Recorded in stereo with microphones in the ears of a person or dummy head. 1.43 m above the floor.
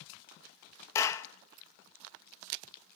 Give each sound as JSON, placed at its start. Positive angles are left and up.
{"t": 0.9, "sound": "a clap", "side_deg": 20, "distance_m": 1.4}